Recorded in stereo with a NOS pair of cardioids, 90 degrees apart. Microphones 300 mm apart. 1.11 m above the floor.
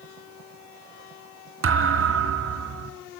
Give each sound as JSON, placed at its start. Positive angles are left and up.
{"t": 1.6, "sound": "a thud", "azimuth_deg": -45, "distance_m": 3.5}